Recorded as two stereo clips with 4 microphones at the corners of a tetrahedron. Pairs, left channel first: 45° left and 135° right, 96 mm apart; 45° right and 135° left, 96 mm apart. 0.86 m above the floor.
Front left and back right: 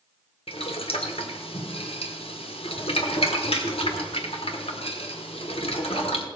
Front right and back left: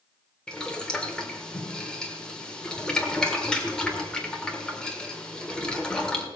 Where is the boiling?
35° left, 1.5 m.